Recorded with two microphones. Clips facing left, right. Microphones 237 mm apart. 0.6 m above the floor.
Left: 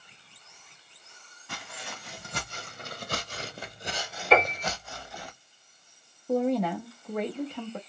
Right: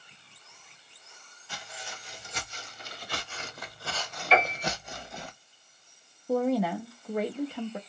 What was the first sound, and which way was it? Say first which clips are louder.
Footsteps: left 2 dB; 60° left (ahead or behind).